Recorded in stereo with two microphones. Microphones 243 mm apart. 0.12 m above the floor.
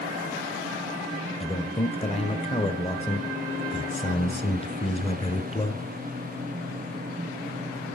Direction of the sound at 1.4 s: 25° left (ahead or behind).